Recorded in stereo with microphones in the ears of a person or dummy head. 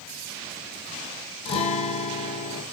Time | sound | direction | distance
1.4 | a guitar | 30° left (ahead or behind) | 1.3 m